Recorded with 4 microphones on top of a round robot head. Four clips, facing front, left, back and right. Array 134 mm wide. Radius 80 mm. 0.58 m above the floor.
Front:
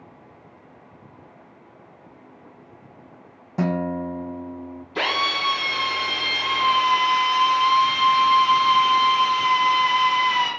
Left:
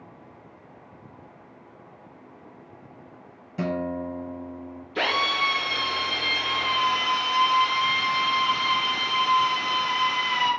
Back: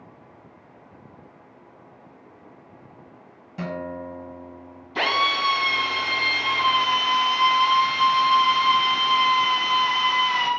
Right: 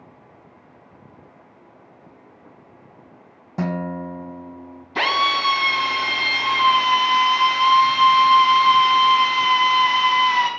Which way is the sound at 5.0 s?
100° right.